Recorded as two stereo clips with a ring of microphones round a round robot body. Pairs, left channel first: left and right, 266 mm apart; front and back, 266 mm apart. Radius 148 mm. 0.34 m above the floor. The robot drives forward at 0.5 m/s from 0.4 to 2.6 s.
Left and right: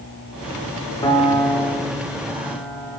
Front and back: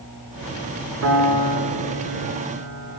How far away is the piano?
About 1.7 m.